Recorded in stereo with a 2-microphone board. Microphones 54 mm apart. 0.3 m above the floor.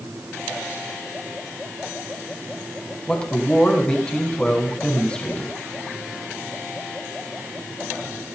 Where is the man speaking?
20° left (ahead or behind), 2.5 m.